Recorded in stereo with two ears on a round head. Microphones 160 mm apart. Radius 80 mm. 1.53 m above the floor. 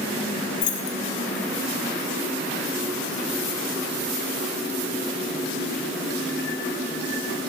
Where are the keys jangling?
70° left (ahead or behind), 1.3 m.